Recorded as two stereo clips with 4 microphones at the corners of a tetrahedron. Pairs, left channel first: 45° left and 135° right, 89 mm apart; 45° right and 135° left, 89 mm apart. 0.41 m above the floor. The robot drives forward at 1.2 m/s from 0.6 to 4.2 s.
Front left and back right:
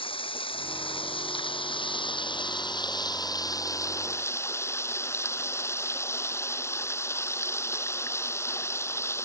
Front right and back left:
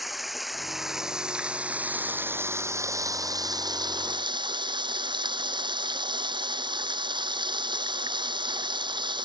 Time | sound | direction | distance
0.0 | running water | 45° left | ?